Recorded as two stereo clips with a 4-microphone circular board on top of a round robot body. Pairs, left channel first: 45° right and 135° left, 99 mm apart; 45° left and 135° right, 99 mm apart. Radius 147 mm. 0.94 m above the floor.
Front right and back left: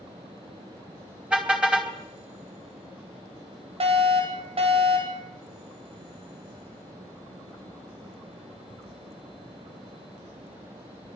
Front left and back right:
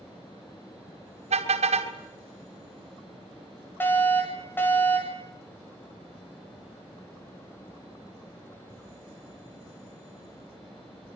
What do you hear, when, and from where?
1.3 s a car horn: 145° right, 3.5 m
3.8 s a fire alarm: 115° left, 10 m